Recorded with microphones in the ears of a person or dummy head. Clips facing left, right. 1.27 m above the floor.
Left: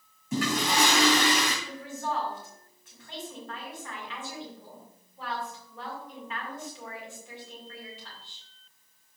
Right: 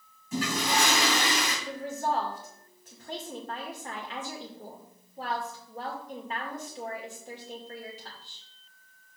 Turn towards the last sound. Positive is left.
turn(degrees=-30)  # may be behind; listen again after turning